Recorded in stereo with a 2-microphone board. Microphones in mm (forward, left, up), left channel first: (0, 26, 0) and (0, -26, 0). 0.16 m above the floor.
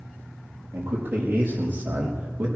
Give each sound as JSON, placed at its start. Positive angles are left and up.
{"t": 0.7, "sound": "a man speaking", "side_deg": -35, "distance_m": 5.0}